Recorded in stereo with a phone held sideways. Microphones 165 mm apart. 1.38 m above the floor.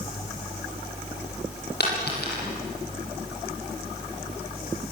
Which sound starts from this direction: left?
A dropped coin, at 1.8 s.